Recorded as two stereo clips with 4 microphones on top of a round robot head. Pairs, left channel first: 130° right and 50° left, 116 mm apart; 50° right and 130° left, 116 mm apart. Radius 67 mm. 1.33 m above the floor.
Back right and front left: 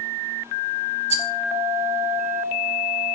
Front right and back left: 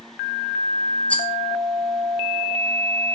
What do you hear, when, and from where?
1.1 s a rattle: 30° left, 1.3 m